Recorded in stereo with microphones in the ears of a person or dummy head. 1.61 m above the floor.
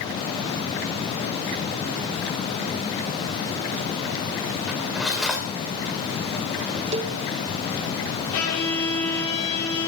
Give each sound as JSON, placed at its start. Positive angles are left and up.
{"t": 4.7, "sound": "cutlery clinking", "side_deg": -5, "distance_m": 4.5}
{"t": 6.9, "sound": "a cowbell", "side_deg": -30, "distance_m": 1.3}
{"t": 8.3, "sound": "a violin", "side_deg": 85, "distance_m": 4.5}